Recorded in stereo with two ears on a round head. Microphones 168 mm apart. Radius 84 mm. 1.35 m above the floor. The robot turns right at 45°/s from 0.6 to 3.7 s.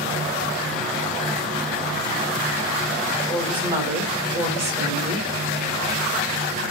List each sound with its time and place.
3.3 s a woman speaking: 5° left (ahead or behind), 4.5 m; by 5.3 s 15° right (ahead or behind), 4.5 m